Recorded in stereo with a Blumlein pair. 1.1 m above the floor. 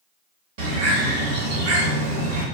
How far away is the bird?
About 1.1 m.